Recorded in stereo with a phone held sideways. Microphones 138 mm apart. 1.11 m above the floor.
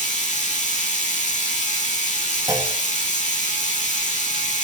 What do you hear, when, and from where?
0.0 s a machine running: 60° left (ahead or behind), 1.3 m
2.5 s a clunk: 25° right (ahead or behind), 1.1 m